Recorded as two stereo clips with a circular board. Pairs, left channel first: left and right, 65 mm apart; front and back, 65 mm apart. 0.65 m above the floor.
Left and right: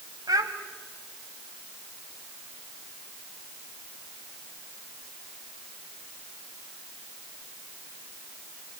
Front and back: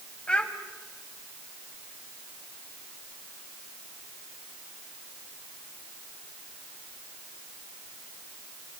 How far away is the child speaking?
About 2 m.